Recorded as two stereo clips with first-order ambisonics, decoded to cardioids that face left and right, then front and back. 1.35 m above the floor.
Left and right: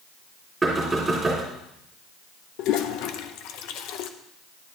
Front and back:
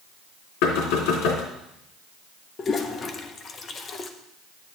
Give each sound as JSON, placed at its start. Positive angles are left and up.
{"t": 0.6, "sound": "knocking", "azimuth_deg": -10, "distance_m": 3.5}
{"t": 2.6, "sound": "a toilet flushing", "azimuth_deg": 65, "distance_m": 0.7}